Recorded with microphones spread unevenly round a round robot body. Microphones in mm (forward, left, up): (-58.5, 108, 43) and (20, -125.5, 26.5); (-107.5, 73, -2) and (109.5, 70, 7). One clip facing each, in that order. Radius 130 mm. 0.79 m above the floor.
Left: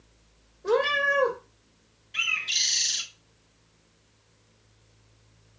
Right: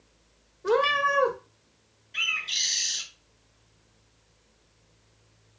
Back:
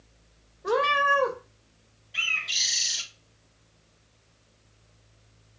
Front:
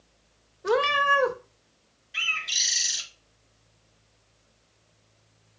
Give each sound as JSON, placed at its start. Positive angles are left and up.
{"t": 0.6, "sound": "a cat meowing", "azimuth_deg": -5, "distance_m": 0.5}
{"t": 2.1, "sound": "a bird", "azimuth_deg": 40, "distance_m": 0.9}